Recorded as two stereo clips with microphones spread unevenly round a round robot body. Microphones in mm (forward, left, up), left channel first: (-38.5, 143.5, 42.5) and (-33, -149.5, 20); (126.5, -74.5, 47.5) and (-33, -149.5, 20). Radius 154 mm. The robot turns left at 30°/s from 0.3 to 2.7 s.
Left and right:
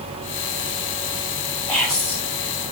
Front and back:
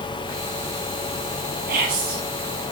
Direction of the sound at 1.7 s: Straight behind.